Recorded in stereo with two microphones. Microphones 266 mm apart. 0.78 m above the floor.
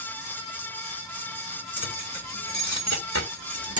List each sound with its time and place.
1.8 s keys jangling: 80° right, 3 m; by 3.8 s 60° right (ahead or behind), 1.2 m